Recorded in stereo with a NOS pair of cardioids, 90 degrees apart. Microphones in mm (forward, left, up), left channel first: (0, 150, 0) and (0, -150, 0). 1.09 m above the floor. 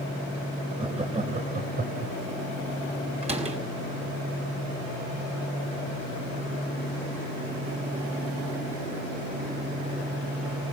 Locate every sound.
0.8 s laughter: 20° right, 5.5 m; by 2.1 s 40° right, 4.5 m
3.2 s a door slam: 20° right, 5.5 m